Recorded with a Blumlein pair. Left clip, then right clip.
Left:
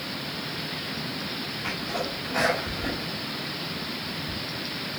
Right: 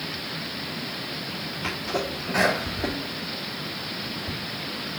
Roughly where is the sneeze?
Ahead right.